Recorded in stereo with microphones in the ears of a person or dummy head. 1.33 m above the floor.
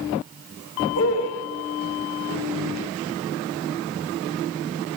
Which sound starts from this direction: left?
A man speaking, at 0.9 s.